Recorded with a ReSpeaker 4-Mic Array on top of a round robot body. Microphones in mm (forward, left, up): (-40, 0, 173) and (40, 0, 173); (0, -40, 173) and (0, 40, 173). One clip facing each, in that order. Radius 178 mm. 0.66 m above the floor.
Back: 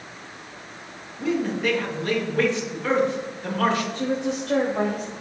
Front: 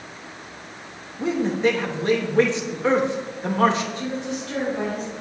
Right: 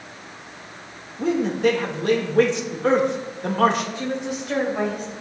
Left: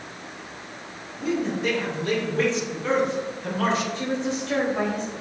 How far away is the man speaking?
About 2.5 m.